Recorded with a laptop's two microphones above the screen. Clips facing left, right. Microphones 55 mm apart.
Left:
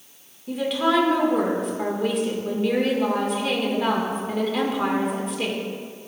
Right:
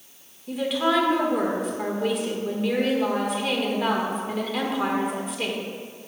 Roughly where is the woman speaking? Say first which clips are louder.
Left 1 dB; centre.